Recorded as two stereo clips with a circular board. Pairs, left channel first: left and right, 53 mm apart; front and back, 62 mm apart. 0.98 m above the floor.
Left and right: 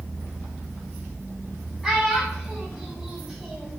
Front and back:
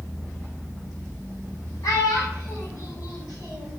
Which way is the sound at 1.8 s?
5° right.